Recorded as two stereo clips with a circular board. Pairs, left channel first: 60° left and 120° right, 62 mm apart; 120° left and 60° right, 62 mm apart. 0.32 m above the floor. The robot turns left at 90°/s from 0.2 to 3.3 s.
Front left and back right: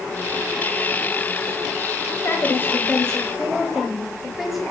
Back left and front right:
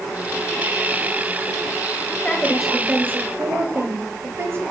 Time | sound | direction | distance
2.2 | a woman speaking | 60° left | 1.2 m